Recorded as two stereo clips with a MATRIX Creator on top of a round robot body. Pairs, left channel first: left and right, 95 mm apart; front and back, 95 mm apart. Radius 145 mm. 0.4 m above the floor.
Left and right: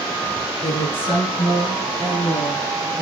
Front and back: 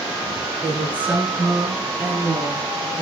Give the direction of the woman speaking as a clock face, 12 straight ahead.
8 o'clock.